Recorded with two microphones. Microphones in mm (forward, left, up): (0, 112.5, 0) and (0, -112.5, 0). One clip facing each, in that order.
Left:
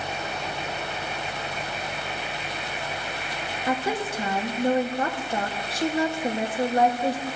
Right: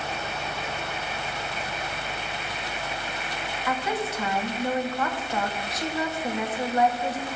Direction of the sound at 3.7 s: 30° left (ahead or behind).